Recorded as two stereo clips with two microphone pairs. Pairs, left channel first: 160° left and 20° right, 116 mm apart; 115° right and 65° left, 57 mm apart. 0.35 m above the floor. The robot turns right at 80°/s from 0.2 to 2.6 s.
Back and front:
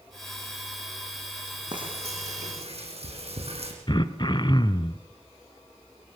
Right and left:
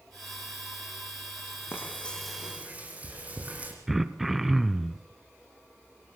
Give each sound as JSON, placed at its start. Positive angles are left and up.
{"t": 1.7, "sound": "frying", "azimuth_deg": -70, "distance_m": 8.0}
{"t": 3.9, "sound": "throat clearing", "azimuth_deg": 150, "distance_m": 1.1}